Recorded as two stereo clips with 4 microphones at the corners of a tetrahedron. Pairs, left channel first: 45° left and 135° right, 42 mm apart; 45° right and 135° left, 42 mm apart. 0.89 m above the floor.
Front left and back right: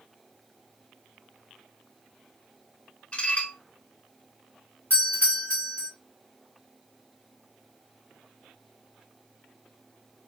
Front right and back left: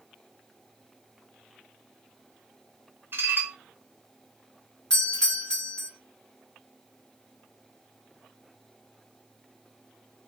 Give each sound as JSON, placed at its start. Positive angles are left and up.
{"t": 3.1, "sound": "dishes clattering", "azimuth_deg": 105, "distance_m": 0.7}
{"t": 4.9, "sound": "a doorbell", "azimuth_deg": 25, "distance_m": 2.0}